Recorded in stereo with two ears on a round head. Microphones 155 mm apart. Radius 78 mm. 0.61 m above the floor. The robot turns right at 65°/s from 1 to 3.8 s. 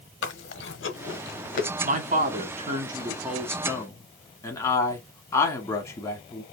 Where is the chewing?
85° left, 1.0 m; by 1.7 s 45° left (ahead or behind), 1.0 m.